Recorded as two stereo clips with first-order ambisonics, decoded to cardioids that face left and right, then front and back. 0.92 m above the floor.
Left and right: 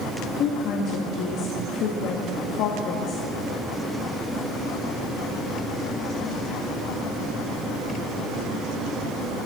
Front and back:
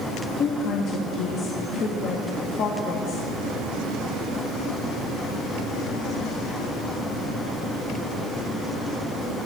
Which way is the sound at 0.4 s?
50° left.